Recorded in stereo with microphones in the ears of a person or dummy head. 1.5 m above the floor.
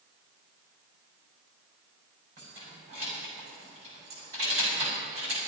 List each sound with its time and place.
2.4 s keys jangling: 35° right (ahead or behind), 6 m